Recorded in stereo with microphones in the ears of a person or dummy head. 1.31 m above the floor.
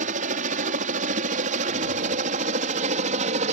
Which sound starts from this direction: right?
A helicopter, at 0.0 s.